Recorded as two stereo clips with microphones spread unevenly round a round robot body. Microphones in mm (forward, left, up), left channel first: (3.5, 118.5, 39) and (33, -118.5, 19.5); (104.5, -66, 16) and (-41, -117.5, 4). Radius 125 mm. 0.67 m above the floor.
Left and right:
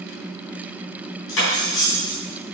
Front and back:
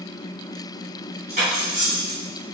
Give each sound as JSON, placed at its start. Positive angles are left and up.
{"t": 1.3, "sound": "cutlery clinking", "azimuth_deg": 135, "distance_m": 3.5}